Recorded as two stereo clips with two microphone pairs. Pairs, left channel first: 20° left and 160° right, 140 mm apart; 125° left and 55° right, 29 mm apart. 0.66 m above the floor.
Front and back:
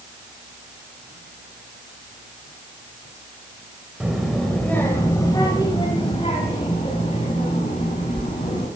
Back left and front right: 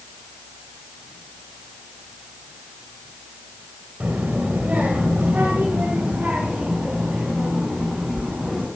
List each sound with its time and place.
4.0 s a child speaking: 80° right, 2 m; by 8.7 s 5° right, 4.5 m